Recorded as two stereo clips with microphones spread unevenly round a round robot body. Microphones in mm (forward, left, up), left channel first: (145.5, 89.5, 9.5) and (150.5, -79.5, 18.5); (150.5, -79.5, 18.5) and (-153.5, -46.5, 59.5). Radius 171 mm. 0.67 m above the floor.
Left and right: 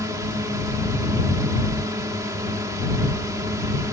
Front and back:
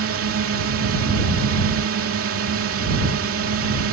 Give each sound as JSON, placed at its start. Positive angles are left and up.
{"t": 0.0, "sound": "a drone", "azimuth_deg": -160}